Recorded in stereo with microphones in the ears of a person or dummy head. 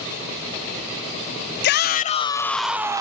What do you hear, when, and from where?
1.6 s a shout: 65° left (ahead or behind), 0.8 m; by 3.0 s 15° right (ahead or behind), 0.8 m